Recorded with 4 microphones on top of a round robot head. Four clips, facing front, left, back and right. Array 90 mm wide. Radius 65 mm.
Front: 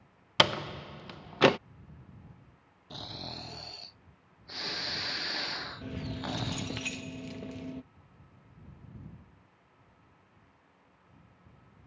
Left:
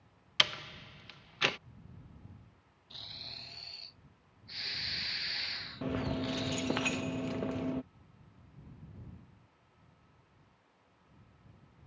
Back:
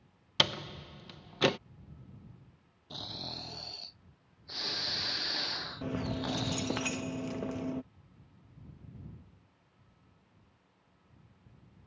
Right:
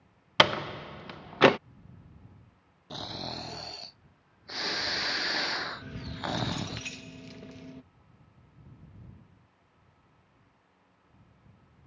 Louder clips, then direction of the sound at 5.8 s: Left 3 dB, back 6 dB; 125° left.